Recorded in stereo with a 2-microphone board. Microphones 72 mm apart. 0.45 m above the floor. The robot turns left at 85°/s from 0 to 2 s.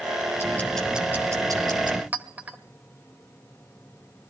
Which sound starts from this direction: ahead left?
Ticking, at 0.4 s.